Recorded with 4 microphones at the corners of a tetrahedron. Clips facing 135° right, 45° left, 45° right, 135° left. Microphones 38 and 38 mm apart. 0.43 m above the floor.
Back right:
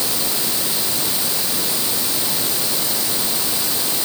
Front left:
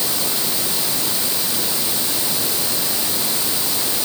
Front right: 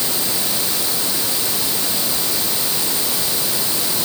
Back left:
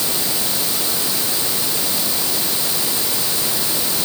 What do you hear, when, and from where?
Only background noise.